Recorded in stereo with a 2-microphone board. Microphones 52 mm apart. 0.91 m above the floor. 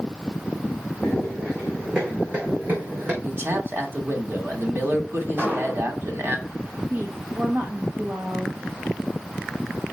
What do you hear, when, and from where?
1.0 s running footsteps: 5° right (ahead or behind), 5 m; by 3.1 s 40° right (ahead or behind), 4 m
3.2 s a man speaking: 45° right (ahead or behind), 2 m
5.4 s an explosion: 35° right (ahead or behind), 3 m
6.9 s a woman speaking: 45° right (ahead or behind), 1.4 m